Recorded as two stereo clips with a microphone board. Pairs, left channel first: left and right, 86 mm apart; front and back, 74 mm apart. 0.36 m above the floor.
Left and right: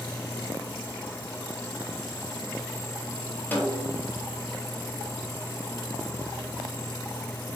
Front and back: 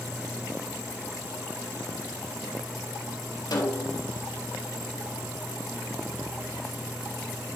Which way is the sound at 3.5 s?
25° left.